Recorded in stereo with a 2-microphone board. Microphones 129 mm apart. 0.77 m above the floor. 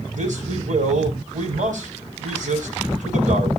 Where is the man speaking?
85° right, 5 m.